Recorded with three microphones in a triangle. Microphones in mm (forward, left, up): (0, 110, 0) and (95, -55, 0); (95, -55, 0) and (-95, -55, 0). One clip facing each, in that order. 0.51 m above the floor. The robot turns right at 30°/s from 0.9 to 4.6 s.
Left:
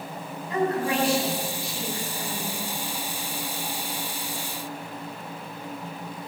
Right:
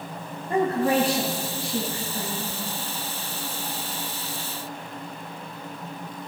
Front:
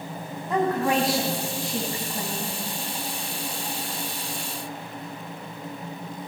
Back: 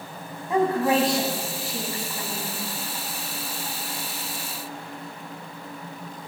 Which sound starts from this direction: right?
A woman speaking, at 0.5 s.